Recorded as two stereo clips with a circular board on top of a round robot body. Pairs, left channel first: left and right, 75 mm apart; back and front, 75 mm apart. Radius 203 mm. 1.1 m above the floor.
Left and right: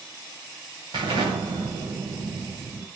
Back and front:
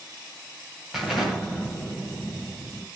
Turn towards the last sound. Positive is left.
turn(degrees=-80)